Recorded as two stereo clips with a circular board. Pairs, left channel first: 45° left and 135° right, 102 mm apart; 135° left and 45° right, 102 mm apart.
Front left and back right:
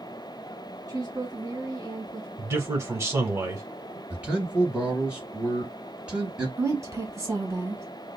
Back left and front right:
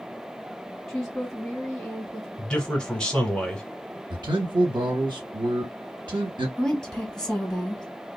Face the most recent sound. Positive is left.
turn(degrees=-150)